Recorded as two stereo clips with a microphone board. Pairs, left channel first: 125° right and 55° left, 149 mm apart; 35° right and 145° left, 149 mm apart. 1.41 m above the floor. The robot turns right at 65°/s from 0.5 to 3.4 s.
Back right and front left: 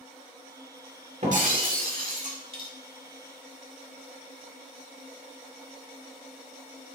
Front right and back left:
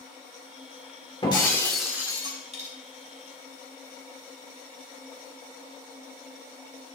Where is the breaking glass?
20° left, 1.8 m; by 2.7 s 115° left, 1.8 m.